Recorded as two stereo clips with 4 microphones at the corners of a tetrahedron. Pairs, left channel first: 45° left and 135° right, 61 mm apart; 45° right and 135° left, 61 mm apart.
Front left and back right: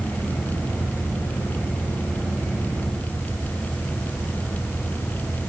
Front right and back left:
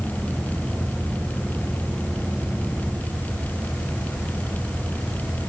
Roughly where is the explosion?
No explosion in this recording.